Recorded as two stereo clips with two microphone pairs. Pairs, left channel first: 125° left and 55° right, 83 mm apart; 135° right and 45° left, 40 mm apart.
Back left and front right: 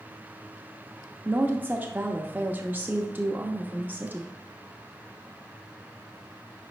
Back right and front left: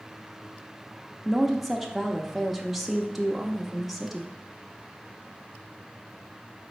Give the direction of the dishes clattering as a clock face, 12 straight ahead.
I don't hear dishes clattering.